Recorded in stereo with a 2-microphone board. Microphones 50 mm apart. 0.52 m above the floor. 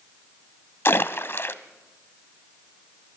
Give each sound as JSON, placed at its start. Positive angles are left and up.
{"t": 0.8, "sound": "a splash", "side_deg": 55, "distance_m": 0.8}